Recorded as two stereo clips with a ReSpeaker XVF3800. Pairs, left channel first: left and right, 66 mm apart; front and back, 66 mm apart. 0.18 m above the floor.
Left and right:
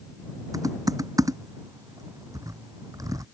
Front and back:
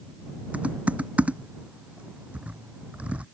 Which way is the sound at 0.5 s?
110° right.